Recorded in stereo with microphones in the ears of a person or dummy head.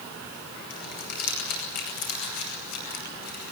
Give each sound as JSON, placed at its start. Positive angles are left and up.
{"t": 0.7, "sound": "crumpling", "side_deg": 55, "distance_m": 7.0}